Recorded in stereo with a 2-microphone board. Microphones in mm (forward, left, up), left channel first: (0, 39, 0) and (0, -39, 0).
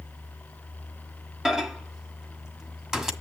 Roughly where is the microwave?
Centre.